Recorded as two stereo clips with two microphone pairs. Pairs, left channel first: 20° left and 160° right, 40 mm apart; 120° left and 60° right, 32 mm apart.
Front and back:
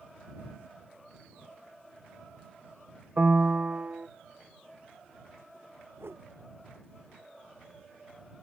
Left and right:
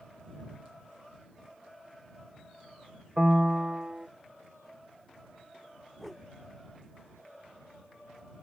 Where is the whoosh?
160° right.